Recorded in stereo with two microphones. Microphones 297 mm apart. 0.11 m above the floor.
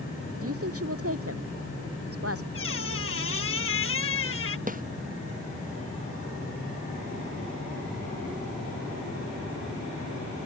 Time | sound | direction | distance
0.4 | a woman speaking | 50° right (ahead or behind) | ?
2.5 | a squeak | 50° left (ahead or behind) | ?
4.7 | a snare drum | 30° right (ahead or behind) | ?